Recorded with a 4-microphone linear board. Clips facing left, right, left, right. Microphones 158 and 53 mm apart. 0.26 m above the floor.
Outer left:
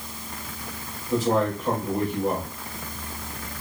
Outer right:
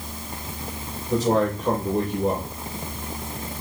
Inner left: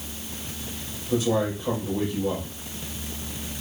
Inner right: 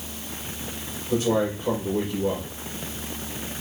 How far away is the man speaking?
About 5.5 m.